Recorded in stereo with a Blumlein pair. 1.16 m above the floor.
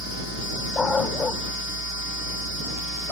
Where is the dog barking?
15° left.